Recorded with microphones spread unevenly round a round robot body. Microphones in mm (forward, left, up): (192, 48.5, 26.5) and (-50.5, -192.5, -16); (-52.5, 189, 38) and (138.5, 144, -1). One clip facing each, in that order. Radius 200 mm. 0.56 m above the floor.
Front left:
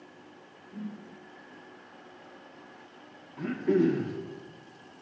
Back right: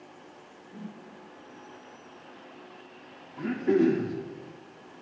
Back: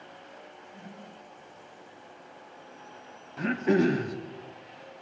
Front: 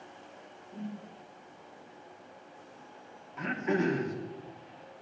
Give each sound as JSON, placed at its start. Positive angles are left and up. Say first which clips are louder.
{"t": 0.7, "sound": "a whoosh", "louder": "front left 3 dB, front 9 dB", "azimuth_deg": -35, "distance_m": 1.7}
{"t": 3.4, "sound": "throat clearing", "louder": "back right 2 dB, back 6 dB", "azimuth_deg": 150, "distance_m": 0.7}